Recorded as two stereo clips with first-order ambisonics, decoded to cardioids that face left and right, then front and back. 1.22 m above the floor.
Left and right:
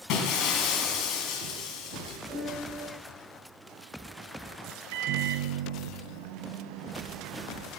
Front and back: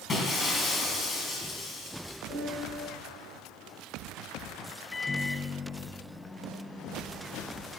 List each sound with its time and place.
0.1 s breaking glass: 65° left, 2.5 m
2.3 s a piano: 30° right, 6 m
4.9 s a microwave: 75° right, 0.7 m